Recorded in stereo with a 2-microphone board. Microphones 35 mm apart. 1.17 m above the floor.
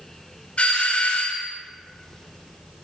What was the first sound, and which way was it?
A doorbell, 35° left (ahead or behind).